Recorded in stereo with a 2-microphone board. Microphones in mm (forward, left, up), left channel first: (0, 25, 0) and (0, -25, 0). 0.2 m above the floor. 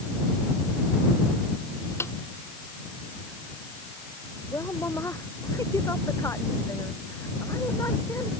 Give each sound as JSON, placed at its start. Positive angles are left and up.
{"t": 2.0, "sound": "a snare drum", "side_deg": 60}
{"t": 4.5, "sound": "a woman speaking", "side_deg": 80}